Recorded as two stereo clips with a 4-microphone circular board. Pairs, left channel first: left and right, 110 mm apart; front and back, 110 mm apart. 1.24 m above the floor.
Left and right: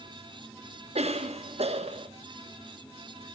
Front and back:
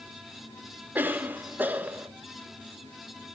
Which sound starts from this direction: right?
A cough, at 0.9 s.